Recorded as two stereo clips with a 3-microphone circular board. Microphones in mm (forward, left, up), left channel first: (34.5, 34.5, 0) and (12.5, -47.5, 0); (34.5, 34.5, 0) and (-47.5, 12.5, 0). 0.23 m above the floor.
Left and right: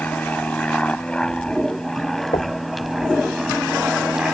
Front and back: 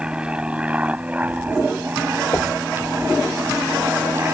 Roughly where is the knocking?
Left.